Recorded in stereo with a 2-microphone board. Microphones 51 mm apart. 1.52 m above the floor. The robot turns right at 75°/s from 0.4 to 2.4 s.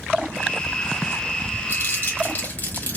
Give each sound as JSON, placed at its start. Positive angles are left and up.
{"t": 1.7, "sound": "crumpling", "side_deg": 35, "distance_m": 1.7}